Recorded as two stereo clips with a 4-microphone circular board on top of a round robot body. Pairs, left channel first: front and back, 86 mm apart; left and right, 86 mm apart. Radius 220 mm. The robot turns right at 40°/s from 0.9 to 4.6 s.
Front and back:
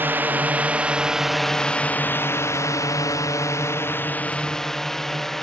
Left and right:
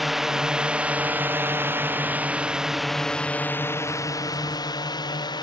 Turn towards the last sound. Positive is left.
turn(degrees=85)